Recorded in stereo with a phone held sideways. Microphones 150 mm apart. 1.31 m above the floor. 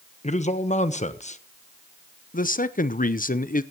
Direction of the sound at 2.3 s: 65° left (ahead or behind).